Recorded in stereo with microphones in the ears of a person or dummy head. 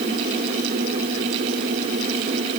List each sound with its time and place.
Only background noise.